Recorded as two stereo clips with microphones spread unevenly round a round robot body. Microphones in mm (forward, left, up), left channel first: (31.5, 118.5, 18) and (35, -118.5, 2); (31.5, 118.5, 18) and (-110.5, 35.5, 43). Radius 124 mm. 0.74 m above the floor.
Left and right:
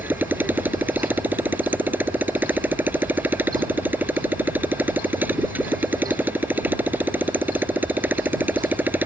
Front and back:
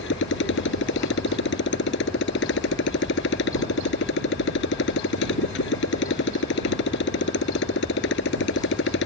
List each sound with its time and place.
0.0 s a motorcycle: 5° right